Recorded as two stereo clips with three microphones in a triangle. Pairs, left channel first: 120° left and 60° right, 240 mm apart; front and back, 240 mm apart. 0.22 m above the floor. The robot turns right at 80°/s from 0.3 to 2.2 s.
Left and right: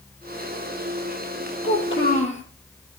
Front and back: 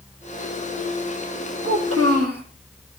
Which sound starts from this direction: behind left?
A child speaking, at 1.6 s.